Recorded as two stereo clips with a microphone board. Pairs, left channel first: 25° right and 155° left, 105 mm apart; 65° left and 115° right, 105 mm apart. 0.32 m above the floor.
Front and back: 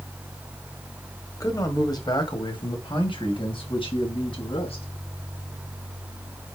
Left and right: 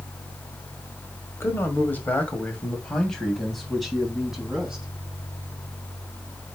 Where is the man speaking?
10° left, 1.9 m; by 4.8 s 30° right, 3 m.